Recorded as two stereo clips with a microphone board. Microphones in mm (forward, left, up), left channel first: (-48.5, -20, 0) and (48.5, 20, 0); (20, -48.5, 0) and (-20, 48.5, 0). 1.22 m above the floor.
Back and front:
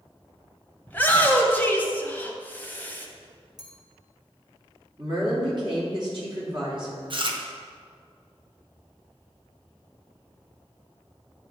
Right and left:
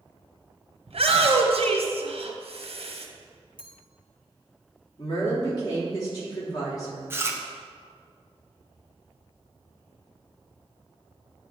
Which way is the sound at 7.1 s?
50° left.